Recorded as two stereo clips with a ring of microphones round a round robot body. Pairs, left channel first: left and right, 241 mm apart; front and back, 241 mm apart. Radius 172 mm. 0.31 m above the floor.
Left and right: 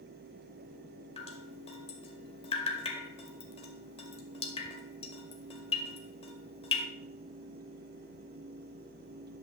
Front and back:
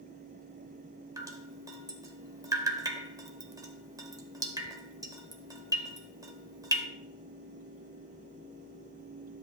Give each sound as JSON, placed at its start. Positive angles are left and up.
{"t": 1.2, "sound": "dripping", "azimuth_deg": 120, "distance_m": 0.9}